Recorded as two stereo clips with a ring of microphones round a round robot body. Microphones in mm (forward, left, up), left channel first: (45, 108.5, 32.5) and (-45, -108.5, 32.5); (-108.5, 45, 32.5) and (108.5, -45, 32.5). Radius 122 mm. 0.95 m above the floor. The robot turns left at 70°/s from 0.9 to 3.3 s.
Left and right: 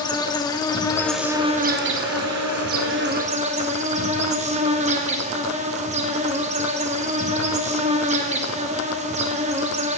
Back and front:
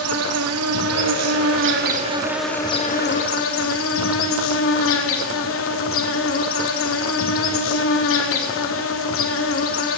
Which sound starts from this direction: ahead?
An insect, at 0.0 s.